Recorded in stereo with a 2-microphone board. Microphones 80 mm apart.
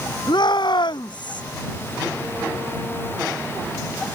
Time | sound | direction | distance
0.3 | a shout | 65° left (ahead or behind) | ?